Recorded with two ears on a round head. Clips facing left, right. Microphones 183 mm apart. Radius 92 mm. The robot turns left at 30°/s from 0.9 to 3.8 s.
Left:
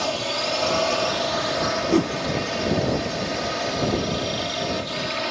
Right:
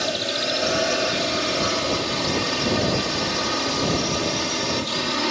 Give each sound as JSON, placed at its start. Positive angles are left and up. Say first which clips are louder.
{"t": 0.0, "sound": "a drone", "louder": "even", "azimuth_deg": -20}
{"t": 1.9, "sound": "a whoosh", "louder": "left 7 dB", "side_deg": 75}